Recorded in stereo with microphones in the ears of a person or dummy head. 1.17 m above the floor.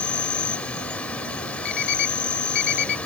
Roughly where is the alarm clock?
Left.